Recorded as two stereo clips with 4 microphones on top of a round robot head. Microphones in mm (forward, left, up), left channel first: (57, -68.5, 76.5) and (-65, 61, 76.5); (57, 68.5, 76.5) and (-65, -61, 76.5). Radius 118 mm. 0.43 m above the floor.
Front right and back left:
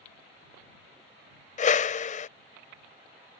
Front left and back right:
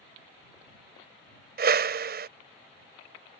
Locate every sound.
1.6 s a whoosh: 95° right